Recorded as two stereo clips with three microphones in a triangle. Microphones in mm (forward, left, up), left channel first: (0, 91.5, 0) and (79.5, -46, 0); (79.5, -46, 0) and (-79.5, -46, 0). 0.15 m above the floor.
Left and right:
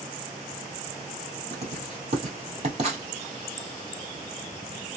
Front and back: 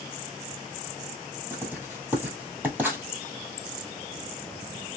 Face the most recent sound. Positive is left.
turn(degrees=-100)